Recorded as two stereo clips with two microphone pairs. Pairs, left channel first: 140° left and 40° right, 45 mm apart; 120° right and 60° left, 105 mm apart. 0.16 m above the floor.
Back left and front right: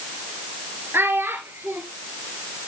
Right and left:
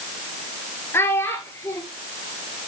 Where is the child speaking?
55° right, 2.5 m.